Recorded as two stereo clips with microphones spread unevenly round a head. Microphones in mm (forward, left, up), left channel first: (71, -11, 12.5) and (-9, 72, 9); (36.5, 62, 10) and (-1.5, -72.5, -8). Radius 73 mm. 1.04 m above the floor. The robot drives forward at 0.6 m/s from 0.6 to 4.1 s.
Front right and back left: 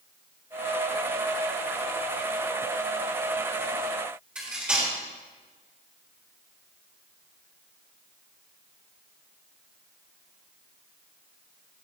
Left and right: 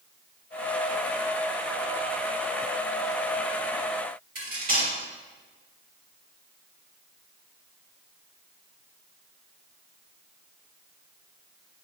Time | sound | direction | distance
4.3 | cutlery clinking | 145° right | 5 m